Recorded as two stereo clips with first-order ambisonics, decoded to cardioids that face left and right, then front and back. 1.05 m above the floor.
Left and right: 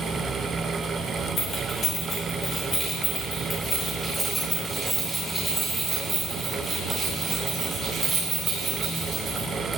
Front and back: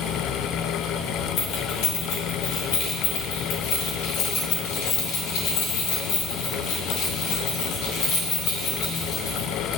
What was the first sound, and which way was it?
Keys jangling, 30° left.